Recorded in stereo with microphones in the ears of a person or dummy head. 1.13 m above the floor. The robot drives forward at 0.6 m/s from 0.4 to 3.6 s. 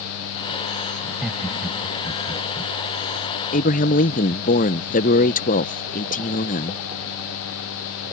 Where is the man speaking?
35° left (ahead or behind).